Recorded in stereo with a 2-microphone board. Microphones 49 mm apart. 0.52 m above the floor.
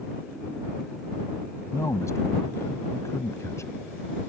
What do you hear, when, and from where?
1.7 s a man speaking: 75° left (ahead or behind)